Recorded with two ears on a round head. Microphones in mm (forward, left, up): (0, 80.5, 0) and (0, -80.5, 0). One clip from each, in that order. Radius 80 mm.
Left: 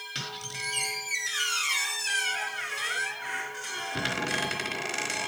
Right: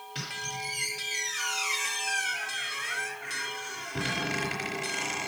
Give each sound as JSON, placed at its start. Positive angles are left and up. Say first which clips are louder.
{"t": 0.1, "sound": "a squeak", "louder": "right 2 dB", "side_deg": 45, "distance_m": 3.5}